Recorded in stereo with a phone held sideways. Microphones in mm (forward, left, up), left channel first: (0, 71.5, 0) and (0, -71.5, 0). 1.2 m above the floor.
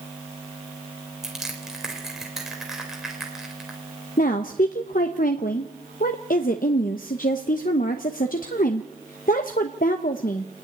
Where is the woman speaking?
80° left, 0.9 m.